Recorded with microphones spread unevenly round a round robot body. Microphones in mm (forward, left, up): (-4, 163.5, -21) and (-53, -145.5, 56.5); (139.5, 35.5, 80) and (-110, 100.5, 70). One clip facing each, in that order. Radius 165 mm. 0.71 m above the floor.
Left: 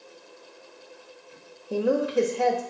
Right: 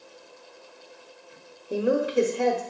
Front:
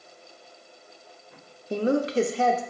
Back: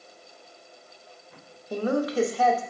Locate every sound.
1.7 s a woman speaking: 15° left, 0.5 m